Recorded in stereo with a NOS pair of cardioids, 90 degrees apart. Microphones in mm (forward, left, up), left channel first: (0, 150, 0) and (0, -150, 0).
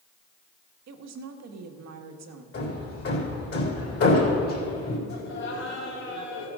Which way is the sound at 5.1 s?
60° left.